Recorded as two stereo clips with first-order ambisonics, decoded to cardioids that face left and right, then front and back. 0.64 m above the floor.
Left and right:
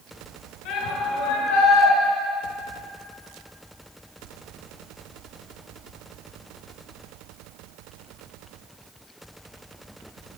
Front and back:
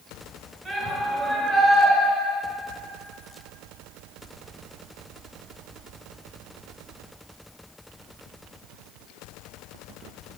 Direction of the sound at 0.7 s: 105° left.